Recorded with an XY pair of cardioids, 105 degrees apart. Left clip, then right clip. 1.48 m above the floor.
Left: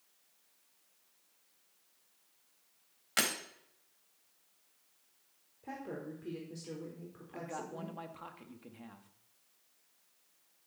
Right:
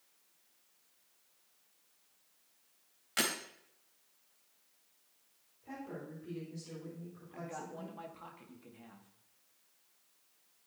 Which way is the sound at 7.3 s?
30° left.